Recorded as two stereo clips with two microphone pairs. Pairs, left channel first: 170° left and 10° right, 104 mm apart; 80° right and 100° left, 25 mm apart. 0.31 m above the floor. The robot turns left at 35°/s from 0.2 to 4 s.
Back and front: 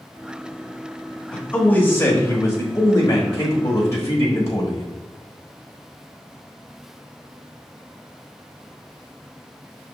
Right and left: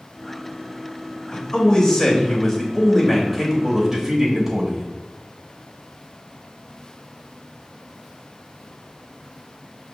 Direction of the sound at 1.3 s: 120° right.